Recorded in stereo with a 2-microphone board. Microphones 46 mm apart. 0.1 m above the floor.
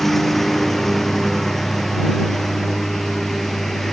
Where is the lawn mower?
5° left (ahead or behind).